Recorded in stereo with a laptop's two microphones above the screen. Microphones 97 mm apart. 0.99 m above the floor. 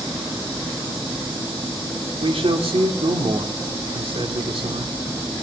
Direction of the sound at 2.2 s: 70° right (ahead or behind).